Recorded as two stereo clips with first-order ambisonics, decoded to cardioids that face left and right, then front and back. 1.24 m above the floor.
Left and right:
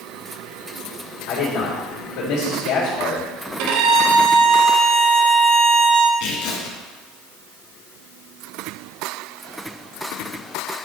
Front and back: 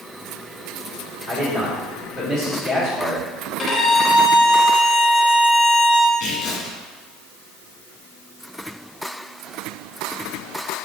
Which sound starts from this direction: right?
A violin, at 3.6 s.